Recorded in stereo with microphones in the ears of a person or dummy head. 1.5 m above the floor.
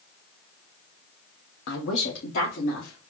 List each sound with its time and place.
1.7 s a woman speaking: 70° left (ahead or behind), 0.9 m; by 3.1 s 65° left (ahead or behind), 1.8 m